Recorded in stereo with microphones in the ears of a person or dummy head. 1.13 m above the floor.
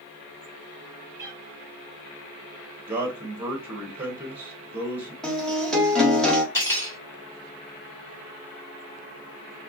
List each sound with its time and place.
1.2 s a cat meowing: 20° right (ahead or behind), 1.9 m
2.9 s a man speaking: 5° right (ahead or behind), 1.2 m
5.2 s a guitar: 5° left (ahead or behind), 0.9 m
6.5 s cutlery clinking: 20° left (ahead or behind), 2.5 m